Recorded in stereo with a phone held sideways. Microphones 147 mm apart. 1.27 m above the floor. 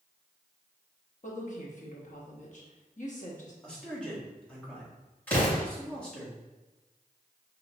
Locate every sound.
1.2 s a woman speaking: 55° left (ahead or behind), 1.0 m
3.6 s a man speaking: 5° left (ahead or behind), 1.4 m
5.3 s an explosion: 10° left (ahead or behind), 2.0 m